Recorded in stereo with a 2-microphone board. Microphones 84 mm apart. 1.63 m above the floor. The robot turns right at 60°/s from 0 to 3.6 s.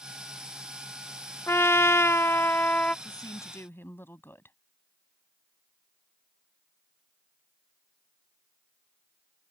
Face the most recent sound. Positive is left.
turn(degrees=155)